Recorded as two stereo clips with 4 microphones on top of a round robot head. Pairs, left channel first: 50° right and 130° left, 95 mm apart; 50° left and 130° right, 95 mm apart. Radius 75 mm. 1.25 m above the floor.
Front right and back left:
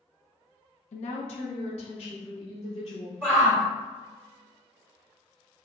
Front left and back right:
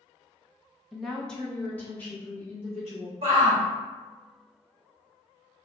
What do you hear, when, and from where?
0.9 s a woman speaking: 45° right, 0.9 m; by 3.1 s 15° right, 3 m
3.2 s a shout: 155° right, 1.9 m